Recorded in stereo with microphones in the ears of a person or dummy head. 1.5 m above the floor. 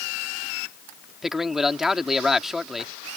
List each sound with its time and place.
1.2 s a man speaking: centre (ahead or behind)